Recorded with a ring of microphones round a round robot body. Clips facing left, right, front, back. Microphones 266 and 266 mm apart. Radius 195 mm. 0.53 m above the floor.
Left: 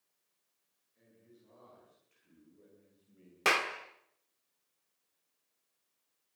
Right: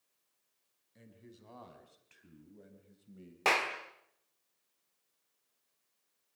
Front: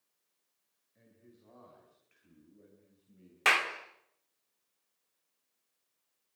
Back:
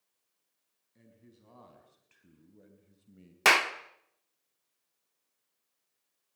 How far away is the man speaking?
About 5 m.